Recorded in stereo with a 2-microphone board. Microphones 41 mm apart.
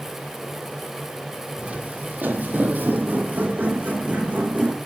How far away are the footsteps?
About 1.3 m.